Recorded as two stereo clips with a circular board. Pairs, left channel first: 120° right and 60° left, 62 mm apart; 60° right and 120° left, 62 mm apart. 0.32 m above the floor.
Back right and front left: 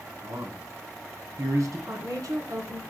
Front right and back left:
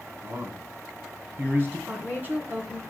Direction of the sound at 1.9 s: 60° left.